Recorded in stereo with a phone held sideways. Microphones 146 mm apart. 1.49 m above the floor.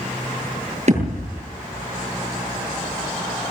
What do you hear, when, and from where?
0.9 s a thud: 50° right (ahead or behind), 8.5 m